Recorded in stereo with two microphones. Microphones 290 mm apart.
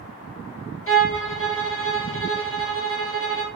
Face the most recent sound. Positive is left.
turn(degrees=45)  # may be behind; listen again after turning